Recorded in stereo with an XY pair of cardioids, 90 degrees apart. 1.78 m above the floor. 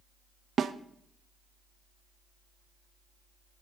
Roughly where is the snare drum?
Ahead right.